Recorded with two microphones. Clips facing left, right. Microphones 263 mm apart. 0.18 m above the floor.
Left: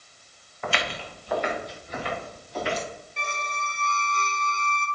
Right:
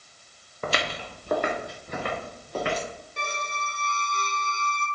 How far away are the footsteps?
About 2.5 m.